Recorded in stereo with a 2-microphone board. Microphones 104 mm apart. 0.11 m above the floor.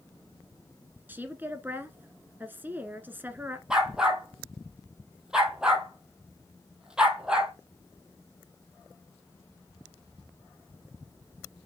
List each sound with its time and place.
1.1 s a woman speaking: 20° right (ahead or behind), 1.2 m
3.7 s a dog barking: 5° right (ahead or behind), 1.5 m